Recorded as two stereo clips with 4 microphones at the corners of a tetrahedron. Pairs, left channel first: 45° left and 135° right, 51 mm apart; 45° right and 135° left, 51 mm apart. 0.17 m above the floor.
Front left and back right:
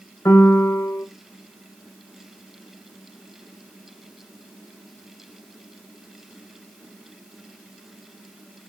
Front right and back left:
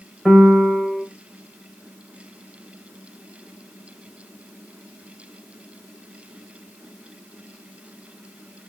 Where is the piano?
45° left, 0.6 m.